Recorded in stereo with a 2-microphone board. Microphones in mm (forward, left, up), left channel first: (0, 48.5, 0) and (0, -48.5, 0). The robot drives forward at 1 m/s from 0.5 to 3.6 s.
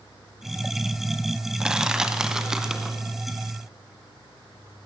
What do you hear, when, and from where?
1.6 s crushing: 10° right (ahead or behind), 1.4 m; by 3.0 s 5° right (ahead or behind), 2.5 m